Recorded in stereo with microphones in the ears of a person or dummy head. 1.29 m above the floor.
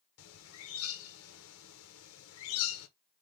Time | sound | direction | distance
0.2 | a bird | 80° left | 0.9 m